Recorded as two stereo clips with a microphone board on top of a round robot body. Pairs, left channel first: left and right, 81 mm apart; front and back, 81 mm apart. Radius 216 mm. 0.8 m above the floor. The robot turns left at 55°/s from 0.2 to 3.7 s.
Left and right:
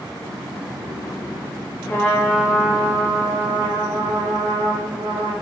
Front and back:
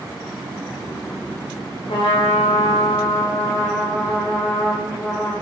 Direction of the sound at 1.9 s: 20° left.